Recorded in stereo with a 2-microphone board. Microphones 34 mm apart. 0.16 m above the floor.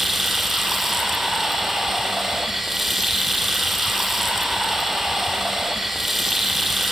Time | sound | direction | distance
0.0 | running water | 5° right (ahead or behind) | 1.8 m